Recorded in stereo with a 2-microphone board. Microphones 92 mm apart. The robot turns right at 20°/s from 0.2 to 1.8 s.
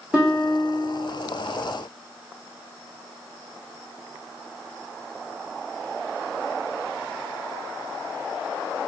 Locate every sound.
0.1 s a guitar: 15° right (ahead or behind), 1.1 m; by 1.0 s 20° right (ahead or behind), 1.1 m